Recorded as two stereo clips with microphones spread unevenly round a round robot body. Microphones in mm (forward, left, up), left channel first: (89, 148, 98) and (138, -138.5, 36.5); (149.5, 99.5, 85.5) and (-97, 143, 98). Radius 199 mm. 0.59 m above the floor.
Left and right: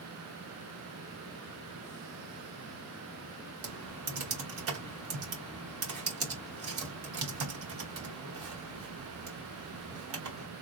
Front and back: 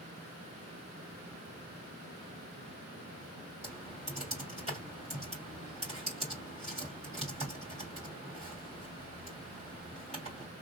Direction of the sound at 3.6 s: 120° right.